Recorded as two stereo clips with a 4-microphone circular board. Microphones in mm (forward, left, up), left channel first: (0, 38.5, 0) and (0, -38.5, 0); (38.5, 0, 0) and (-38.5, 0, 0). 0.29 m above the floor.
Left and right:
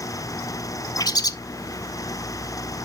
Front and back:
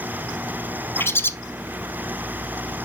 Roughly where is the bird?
Ahead left.